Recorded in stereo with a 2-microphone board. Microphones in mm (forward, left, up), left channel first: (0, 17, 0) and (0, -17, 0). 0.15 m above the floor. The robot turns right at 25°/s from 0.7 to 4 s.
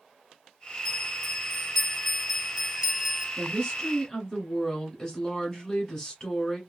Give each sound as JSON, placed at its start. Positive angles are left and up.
{"t": 0.8, "sound": "a bell", "azimuth_deg": 145, "distance_m": 1.2}
{"t": 3.4, "sound": "a woman speaking", "side_deg": 25, "distance_m": 1.8}